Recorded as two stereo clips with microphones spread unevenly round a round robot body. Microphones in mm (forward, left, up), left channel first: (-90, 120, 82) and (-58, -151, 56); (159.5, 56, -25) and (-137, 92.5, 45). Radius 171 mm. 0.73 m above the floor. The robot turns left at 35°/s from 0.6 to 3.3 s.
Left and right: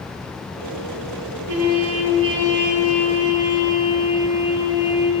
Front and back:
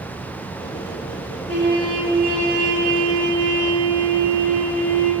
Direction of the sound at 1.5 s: 95° right.